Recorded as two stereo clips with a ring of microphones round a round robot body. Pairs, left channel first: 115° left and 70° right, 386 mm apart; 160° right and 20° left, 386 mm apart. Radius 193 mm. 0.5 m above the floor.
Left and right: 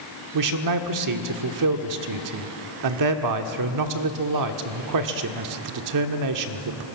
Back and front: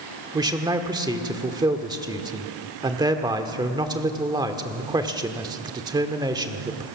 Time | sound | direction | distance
0.3 | a man speaking | 55° right | 1.3 m